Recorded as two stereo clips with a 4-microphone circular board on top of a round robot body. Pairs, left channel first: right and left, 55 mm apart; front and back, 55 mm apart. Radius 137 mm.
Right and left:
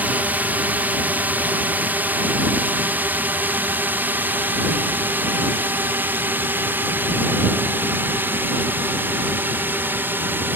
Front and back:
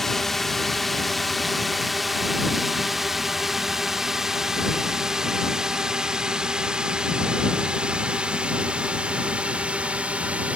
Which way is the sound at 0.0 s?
85° left.